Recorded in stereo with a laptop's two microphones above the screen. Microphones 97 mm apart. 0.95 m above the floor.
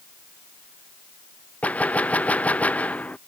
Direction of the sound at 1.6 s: 15° left (ahead or behind).